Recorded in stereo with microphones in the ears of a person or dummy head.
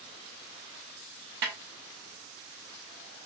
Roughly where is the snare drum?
Right.